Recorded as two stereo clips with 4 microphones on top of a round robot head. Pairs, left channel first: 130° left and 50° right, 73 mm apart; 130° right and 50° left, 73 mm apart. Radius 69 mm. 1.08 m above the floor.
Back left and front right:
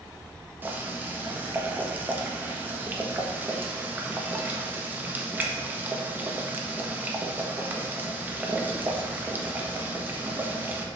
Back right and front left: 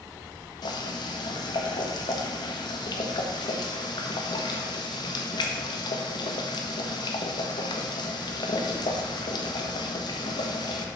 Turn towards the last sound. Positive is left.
turn(degrees=-115)